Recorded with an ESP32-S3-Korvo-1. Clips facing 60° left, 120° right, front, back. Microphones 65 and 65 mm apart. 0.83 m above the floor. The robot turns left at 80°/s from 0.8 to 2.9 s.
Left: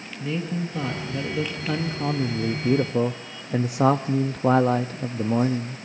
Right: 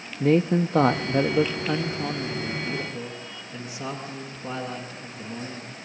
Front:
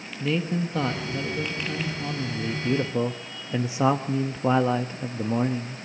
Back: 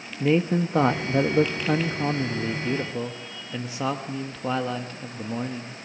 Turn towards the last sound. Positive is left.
turn(degrees=65)